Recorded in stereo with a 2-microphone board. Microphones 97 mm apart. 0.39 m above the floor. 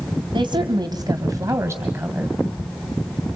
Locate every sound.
0.3 s a woman speaking: 55° right (ahead or behind), 2 m; by 2.4 s 15° right (ahead or behind), 2 m